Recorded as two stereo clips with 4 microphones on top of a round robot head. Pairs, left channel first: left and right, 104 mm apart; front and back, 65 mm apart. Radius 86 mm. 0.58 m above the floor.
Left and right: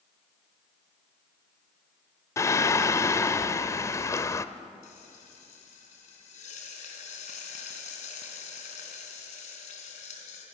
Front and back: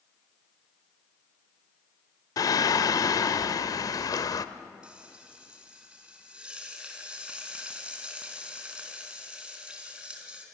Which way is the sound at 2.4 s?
25° left.